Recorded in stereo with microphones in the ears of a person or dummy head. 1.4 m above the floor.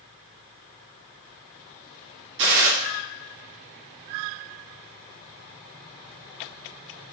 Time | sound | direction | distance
2.4 | a gunshot | 65° right (ahead or behind) | 1.1 m